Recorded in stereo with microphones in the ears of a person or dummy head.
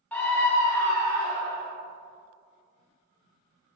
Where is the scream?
10° left (ahead or behind), 0.5 m; by 1.7 s 15° left (ahead or behind), 1.4 m.